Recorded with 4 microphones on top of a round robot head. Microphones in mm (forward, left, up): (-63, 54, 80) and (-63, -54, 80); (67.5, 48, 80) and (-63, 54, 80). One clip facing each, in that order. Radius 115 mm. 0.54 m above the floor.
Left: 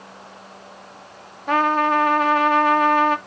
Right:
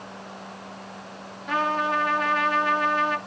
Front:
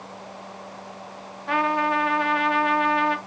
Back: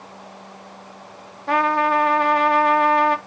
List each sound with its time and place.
1.5 s a trumpet: 130° left, 0.6 m